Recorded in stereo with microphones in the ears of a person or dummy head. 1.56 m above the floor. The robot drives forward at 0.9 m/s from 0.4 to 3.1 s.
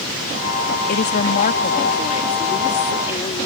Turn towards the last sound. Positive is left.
turn(degrees=30)  # may be behind; listen again after turning